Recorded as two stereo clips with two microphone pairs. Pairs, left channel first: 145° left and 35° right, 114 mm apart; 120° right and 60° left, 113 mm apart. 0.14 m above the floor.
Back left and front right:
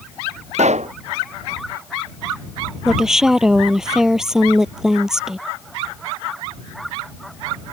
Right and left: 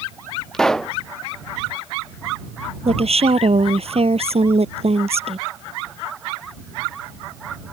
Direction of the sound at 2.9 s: 50° left.